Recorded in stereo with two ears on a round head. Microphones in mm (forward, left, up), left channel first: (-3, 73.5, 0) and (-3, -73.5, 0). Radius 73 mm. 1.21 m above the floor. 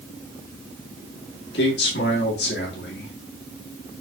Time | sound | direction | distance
1.5 | a man speaking | 75° left (ahead or behind) | 1.9 m